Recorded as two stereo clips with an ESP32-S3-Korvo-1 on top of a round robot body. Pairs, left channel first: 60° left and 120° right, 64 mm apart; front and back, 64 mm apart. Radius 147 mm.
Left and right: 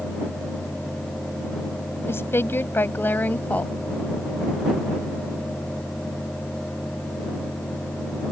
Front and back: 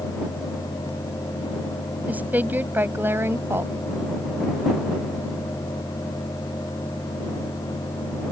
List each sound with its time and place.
2.1 s a woman speaking: 115° left; by 3.7 s 130° left